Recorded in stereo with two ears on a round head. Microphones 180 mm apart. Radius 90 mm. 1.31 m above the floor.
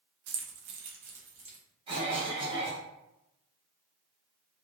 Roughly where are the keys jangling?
Right.